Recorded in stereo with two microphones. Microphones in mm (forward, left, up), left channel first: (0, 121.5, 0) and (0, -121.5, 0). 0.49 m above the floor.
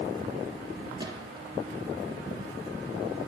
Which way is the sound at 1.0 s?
15° right (ahead or behind).